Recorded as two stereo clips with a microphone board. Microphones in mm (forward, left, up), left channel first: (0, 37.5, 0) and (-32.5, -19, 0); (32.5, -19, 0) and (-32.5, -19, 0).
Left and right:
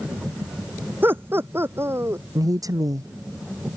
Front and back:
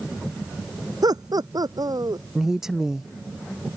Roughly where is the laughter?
Behind.